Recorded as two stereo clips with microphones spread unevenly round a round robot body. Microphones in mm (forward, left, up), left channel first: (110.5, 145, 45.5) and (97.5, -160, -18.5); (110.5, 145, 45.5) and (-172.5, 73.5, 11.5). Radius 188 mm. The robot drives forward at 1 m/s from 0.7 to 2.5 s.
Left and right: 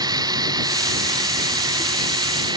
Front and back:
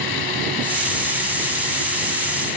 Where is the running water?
15° right.